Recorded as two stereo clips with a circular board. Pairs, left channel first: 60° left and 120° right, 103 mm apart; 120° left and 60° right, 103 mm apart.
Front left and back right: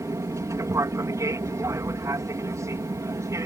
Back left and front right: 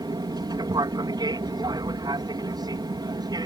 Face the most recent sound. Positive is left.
turn(degrees=-75)